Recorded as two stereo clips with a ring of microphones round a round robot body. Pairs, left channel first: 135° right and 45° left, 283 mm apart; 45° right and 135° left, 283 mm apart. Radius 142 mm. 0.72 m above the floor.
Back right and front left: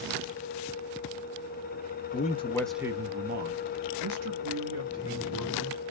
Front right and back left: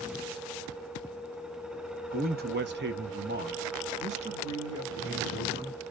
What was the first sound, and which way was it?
A man speaking, straight behind.